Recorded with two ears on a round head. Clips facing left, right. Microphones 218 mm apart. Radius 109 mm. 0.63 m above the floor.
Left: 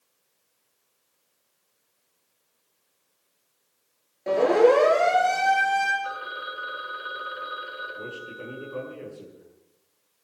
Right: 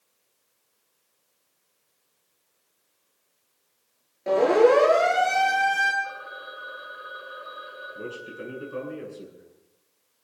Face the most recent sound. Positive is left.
turn(degrees=-25)  # may be behind; listen again after turning